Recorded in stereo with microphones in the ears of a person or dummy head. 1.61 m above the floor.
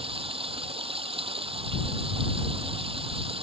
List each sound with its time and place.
0.0 s running water: 25° right (ahead or behind)